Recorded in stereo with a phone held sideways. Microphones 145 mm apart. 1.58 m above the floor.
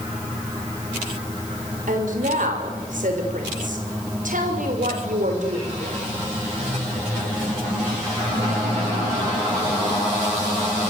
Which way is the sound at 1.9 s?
70° right (ahead or behind).